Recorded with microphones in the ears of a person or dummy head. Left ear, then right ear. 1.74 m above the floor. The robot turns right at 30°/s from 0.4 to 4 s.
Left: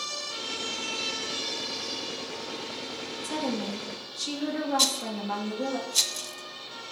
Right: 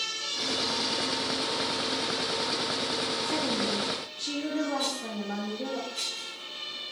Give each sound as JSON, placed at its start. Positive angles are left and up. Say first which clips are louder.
{"t": 3.2, "sound": "a woman speaking", "louder": "right 3 dB", "side_deg": 75, "distance_m": 3.0}
{"t": 4.8, "sound": "a rattle", "louder": "left 5 dB", "side_deg": 85, "distance_m": 0.6}